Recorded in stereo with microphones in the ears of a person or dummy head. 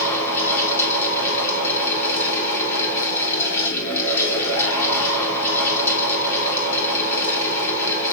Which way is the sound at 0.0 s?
10° left (ahead or behind).